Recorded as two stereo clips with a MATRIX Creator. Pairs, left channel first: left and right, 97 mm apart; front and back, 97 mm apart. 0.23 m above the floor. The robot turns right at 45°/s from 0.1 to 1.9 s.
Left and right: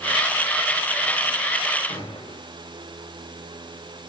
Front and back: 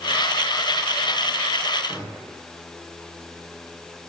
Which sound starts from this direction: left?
A gunshot, at 1.9 s.